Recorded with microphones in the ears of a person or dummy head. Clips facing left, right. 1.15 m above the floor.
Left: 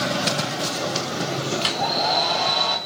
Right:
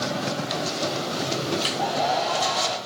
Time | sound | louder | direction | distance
1.6 | a hair dryer | even | 30° left (ahead or behind) | 3.5 m